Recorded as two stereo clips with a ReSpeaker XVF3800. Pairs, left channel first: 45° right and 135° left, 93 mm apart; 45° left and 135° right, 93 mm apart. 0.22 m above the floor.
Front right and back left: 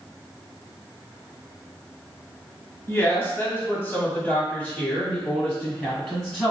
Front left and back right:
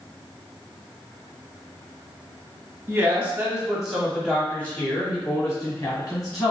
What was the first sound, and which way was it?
A woman speaking, 85° right.